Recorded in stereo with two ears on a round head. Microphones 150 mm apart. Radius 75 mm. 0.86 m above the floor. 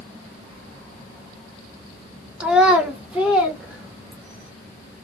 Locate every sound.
2.4 s a child speaking: 5° right (ahead or behind), 1.0 m